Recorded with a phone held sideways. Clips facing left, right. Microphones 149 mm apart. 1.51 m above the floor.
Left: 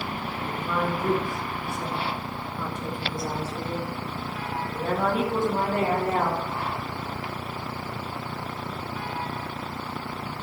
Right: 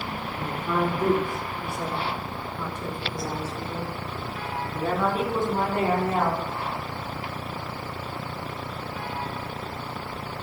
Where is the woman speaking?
80° right, 1.0 m; by 6.4 s 50° left (ahead or behind), 2.5 m.